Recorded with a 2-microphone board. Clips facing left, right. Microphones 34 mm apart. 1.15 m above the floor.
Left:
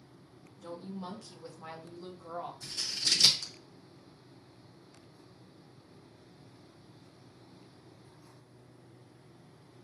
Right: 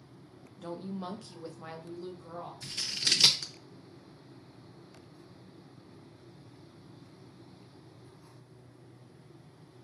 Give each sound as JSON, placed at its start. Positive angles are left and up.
{"t": 0.6, "sound": "a woman speaking", "side_deg": -50, "distance_m": 0.8}
{"t": 2.6, "sound": "scissors", "side_deg": -40, "distance_m": 0.6}